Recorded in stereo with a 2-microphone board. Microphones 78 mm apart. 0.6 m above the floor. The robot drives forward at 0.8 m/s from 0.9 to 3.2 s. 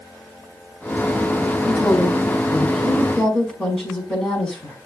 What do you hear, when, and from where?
1.7 s a woman speaking: 10° left (ahead or behind), 4 m